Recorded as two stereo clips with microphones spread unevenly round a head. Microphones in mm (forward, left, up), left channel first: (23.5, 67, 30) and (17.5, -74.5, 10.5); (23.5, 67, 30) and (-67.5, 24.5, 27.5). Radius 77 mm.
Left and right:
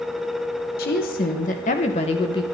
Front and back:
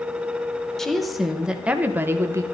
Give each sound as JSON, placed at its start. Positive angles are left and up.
{"t": 0.8, "sound": "a woman speaking", "azimuth_deg": 110, "distance_m": 1.6}